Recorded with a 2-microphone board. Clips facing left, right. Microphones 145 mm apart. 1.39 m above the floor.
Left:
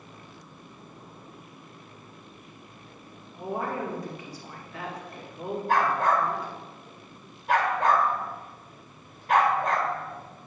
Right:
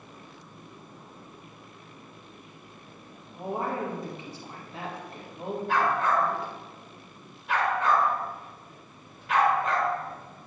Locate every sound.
3.3 s a woman speaking: 25° right (ahead or behind), 2.5 m
5.7 s a dog barking: 40° left (ahead or behind), 1.8 m